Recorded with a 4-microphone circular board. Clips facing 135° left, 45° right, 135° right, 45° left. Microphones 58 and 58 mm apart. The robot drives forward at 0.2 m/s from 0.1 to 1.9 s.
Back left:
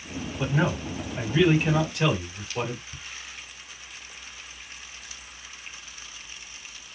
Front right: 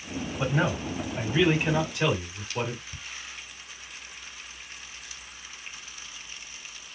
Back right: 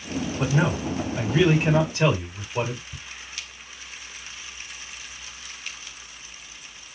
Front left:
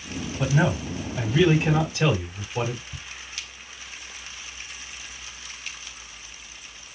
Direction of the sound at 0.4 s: 125° right.